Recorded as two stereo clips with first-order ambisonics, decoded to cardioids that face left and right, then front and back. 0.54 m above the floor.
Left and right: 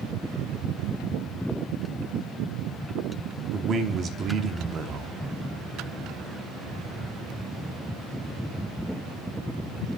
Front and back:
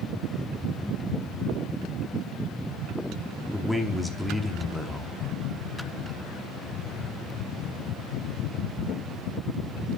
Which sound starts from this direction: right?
A man speaking, at 3.5 s.